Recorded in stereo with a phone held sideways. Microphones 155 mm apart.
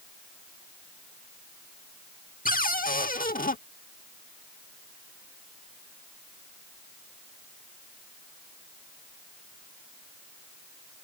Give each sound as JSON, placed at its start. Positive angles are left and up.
{"t": 2.5, "sound": "a cupboard door", "side_deg": 65}